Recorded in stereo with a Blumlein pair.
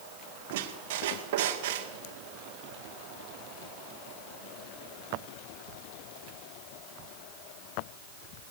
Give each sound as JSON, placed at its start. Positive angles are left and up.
{"t": 0.5, "sound": "a squeak", "azimuth_deg": -50, "distance_m": 2.0}